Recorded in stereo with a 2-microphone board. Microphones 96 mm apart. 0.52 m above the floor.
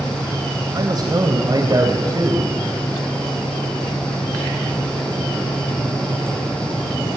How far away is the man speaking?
About 3 m.